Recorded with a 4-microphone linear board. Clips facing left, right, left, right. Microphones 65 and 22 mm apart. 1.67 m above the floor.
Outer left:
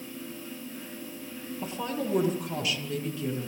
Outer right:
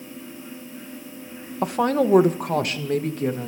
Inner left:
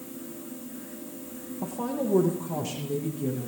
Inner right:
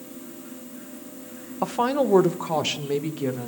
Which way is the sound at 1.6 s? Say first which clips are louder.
Outer right 12 dB, inner right 8 dB; 70° right (ahead or behind).